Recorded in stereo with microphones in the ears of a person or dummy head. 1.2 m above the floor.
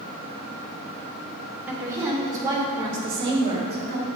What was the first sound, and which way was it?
A woman speaking, 10° right (ahead or behind).